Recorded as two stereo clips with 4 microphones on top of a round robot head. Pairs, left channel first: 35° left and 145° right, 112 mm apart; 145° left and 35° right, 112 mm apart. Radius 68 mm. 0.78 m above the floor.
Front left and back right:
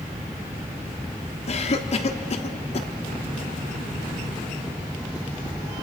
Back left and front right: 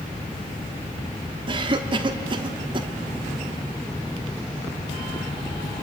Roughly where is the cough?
Ahead.